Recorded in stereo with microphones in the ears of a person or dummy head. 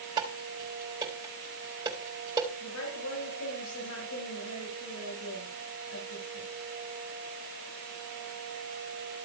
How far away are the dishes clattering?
About 4 m.